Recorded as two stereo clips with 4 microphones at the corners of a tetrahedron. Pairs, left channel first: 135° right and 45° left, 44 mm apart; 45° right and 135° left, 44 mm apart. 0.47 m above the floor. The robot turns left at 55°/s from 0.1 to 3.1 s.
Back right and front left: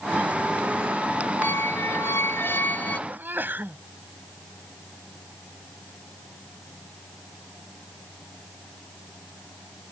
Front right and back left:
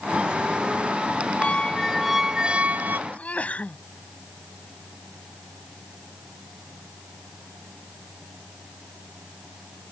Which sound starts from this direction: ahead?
A sneeze, at 3.1 s.